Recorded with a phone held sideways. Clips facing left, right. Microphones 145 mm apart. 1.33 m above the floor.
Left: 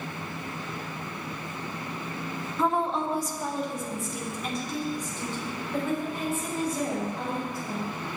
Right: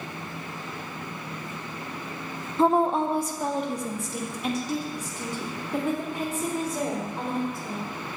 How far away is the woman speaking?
About 0.6 m.